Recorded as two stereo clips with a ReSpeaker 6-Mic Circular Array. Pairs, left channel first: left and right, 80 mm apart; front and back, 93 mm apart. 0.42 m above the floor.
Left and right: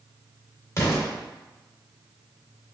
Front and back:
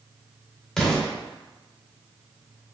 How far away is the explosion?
About 1.6 m.